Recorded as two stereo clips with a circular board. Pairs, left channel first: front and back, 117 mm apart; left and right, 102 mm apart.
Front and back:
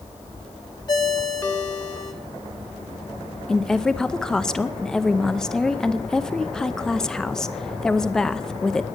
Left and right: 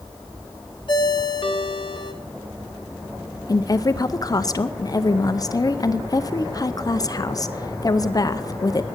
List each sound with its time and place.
0.9 s a ringtone: 55° left, 1.3 m
3.5 s a woman speaking: 80° left, 0.6 m